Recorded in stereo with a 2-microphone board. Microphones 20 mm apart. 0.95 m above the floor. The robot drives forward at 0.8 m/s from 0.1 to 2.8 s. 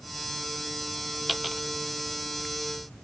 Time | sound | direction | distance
1.3 | a dropped coin | 5° right (ahead or behind) | ?